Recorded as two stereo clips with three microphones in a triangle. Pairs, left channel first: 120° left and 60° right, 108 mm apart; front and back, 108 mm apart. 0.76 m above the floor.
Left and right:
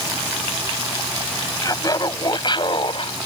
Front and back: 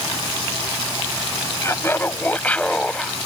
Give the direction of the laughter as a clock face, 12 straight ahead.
10 o'clock.